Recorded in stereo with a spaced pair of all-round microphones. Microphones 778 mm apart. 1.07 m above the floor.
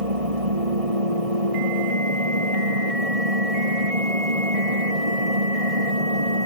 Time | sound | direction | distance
0.0 | an engine running | 45° right (ahead or behind) | ?